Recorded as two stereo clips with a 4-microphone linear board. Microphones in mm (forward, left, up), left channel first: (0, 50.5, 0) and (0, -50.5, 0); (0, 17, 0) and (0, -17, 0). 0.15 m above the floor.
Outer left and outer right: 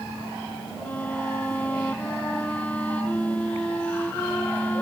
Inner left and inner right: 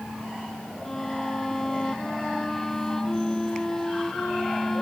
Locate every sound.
0.8 s a violin: 15° left (ahead or behind)